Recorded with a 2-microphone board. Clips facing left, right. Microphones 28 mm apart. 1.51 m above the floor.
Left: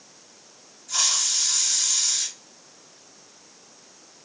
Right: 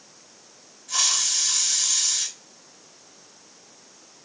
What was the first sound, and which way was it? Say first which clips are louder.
A hiss: right 1 dB; 75° right (ahead or behind).